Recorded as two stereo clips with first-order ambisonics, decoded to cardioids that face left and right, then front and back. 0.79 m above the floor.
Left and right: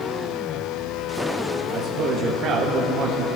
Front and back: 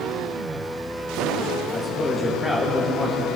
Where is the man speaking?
75° right, 1.2 m.